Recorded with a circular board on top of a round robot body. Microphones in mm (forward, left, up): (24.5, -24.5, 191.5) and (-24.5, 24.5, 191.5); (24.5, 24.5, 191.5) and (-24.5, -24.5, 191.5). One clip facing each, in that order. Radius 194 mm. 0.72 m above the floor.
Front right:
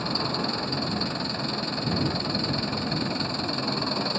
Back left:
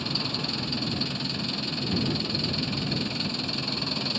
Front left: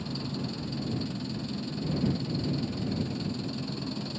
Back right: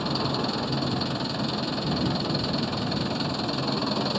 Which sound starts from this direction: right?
An engine running, at 0.0 s.